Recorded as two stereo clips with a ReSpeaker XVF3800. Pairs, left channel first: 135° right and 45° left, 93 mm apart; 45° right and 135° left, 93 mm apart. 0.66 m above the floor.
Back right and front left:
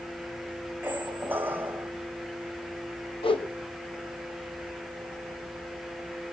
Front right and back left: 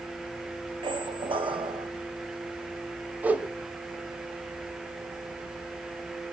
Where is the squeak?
115° left, 2 m.